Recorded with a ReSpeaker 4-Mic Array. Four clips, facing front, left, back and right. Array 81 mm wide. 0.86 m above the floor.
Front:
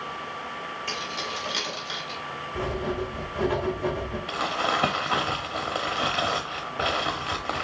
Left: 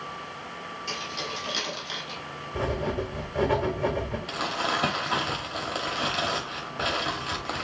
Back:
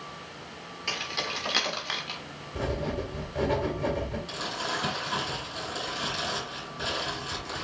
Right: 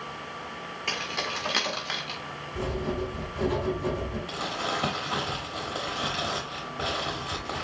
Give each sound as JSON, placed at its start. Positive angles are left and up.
{"t": 0.9, "sound": "keys jangling", "azimuth_deg": -110, "distance_m": 1.7}
{"t": 2.5, "sound": "writing", "azimuth_deg": 95, "distance_m": 1.6}
{"t": 4.3, "sound": "crumpling", "azimuth_deg": 20, "distance_m": 1.1}